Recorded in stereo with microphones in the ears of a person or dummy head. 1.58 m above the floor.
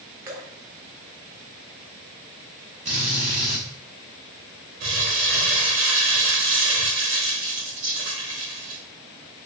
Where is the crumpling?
45° right (ahead or behind), 1.5 m.